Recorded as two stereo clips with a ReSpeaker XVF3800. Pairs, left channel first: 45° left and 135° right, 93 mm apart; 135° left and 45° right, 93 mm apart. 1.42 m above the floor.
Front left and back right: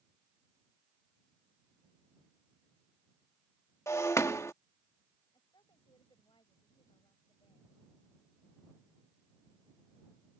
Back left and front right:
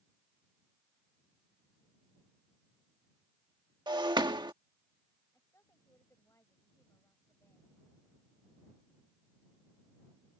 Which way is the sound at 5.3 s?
75° left.